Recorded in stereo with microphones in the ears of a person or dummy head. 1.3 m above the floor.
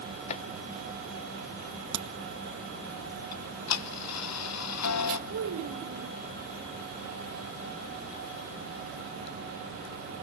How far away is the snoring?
I don't hear snoring.